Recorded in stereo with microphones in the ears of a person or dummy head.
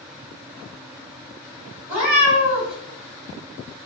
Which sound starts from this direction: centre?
A cat meowing, at 1.9 s.